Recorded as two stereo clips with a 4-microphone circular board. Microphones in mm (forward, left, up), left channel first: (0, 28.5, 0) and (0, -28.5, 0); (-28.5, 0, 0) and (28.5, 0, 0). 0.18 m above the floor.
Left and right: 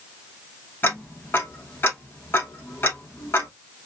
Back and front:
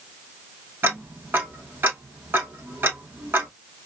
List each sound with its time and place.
0.8 s ticking: 45° left, 0.9 m